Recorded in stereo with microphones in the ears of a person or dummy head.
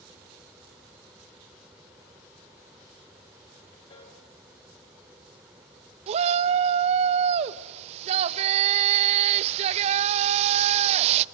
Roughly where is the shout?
Right.